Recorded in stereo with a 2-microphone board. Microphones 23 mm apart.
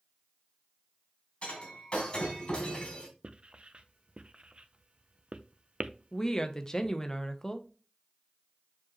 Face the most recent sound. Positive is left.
turn(degrees=25)  # may be behind; listen again after turning